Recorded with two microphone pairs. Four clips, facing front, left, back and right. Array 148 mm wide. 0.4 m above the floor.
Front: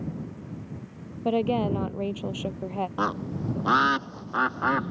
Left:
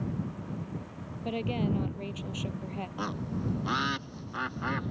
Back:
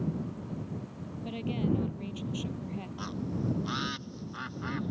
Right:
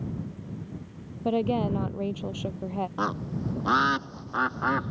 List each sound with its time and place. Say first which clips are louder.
1.2 s a woman speaking: right 6 dB, front 8 dB; 25° right
3.0 s a bird: right 4 dB, front 3 dB; 20° right